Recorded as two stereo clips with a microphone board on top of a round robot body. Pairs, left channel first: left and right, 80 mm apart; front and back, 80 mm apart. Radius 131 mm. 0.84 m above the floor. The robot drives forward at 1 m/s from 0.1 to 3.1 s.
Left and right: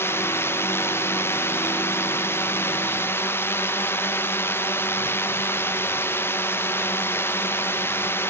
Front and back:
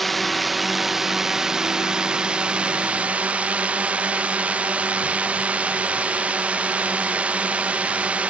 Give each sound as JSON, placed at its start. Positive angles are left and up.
{"t": 0.0, "sound": "a drone", "azimuth_deg": 90}